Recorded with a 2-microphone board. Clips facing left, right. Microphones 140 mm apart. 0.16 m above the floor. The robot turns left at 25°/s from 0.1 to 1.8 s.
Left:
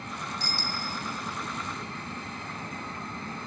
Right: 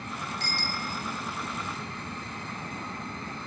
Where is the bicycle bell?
65° right (ahead or behind), 2 m; by 0.9 s 60° right (ahead or behind), 2 m.